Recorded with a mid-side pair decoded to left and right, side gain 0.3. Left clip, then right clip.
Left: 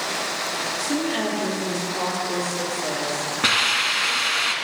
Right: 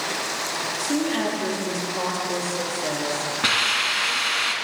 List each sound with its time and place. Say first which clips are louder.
0.8 s a woman speaking: right 2 dB; 45° right, 3.5 m
3.4 s a hiss: left 1 dB; 5° left, 2 m